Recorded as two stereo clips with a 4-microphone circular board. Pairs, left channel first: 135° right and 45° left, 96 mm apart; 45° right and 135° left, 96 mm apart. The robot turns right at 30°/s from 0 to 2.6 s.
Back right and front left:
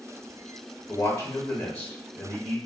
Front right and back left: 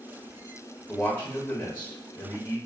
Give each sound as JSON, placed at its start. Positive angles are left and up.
{"t": 0.9, "sound": "a man speaking", "azimuth_deg": -110, "distance_m": 0.8}